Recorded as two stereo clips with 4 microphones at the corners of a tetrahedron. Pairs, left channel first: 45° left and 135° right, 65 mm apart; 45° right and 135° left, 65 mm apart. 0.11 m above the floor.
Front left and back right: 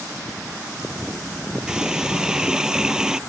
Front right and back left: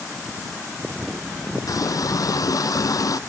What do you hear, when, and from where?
1.7 s a running tap: 55° right